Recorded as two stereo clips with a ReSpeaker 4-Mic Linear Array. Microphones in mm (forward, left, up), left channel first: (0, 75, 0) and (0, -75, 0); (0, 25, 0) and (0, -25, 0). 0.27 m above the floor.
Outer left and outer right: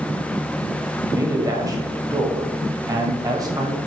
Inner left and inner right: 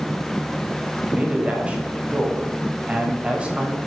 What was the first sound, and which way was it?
A man speaking, 25° right (ahead or behind).